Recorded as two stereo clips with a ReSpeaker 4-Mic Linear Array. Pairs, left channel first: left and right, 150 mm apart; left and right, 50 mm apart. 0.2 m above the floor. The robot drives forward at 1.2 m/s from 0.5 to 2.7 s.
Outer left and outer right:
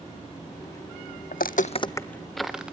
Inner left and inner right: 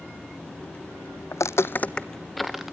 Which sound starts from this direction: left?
Footsteps, at 1.3 s.